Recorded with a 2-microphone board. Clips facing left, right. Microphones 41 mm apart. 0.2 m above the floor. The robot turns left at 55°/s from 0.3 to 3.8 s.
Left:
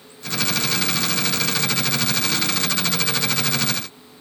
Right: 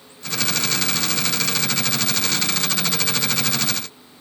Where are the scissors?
No scissors in this recording.